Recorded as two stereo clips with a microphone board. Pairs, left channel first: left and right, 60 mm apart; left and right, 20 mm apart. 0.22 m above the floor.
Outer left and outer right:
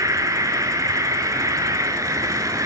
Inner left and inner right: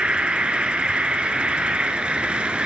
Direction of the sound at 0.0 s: 65° right (ahead or behind).